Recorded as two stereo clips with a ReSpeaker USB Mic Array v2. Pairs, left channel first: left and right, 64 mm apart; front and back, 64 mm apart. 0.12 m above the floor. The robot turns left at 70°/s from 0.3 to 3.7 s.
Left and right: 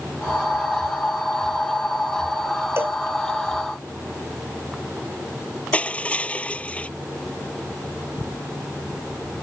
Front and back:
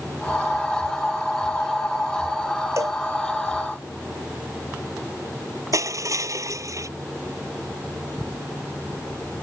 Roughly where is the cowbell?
Behind right.